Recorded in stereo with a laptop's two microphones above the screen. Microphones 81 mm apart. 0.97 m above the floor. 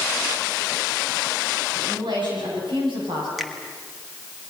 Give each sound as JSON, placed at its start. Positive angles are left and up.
{"t": 1.7, "sound": "a woman speaking", "side_deg": -70, "distance_m": 8.5}
{"t": 3.4, "sound": "a finger snap", "side_deg": 0, "distance_m": 1.4}